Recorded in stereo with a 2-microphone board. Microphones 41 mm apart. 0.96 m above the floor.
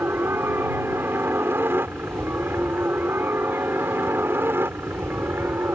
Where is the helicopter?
65° right (ahead or behind).